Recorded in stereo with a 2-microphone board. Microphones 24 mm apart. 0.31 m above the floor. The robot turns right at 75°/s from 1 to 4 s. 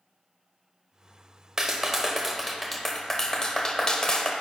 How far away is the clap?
About 0.7 m.